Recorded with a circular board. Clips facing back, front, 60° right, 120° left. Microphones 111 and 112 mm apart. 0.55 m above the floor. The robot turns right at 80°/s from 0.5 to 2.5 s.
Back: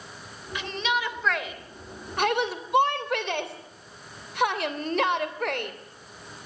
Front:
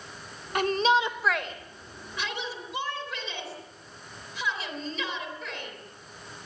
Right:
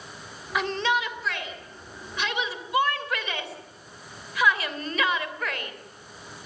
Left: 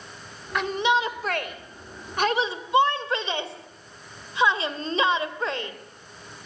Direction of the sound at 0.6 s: 25° left.